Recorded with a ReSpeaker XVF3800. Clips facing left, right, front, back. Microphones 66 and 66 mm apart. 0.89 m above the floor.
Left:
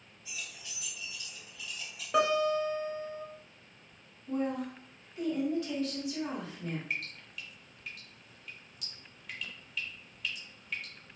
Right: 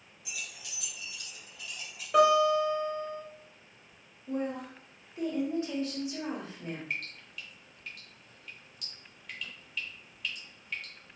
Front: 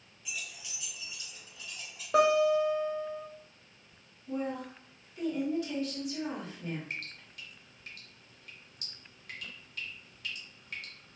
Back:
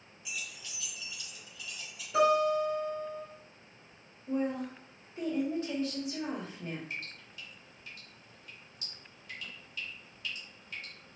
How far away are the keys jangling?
About 0.6 m.